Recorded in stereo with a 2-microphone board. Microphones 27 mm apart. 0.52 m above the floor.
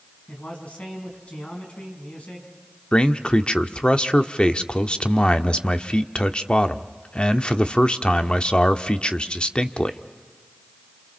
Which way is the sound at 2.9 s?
40° left (ahead or behind).